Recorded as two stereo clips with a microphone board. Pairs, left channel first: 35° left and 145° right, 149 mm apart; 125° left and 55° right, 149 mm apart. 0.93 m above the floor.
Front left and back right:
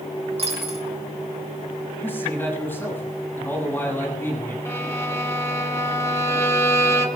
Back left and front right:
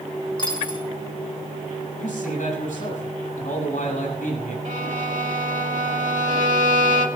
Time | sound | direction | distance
0.4 | a dropped coin | 175° left | 3 m
2.0 | a man speaking | 110° left | 7.5 m
4.7 | a violin | 35° right | 1.9 m